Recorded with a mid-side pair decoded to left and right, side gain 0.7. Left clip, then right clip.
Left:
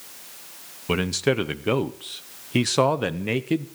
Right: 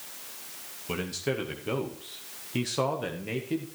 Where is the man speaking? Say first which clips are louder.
Left 8 dB; 40° left, 0.7 m.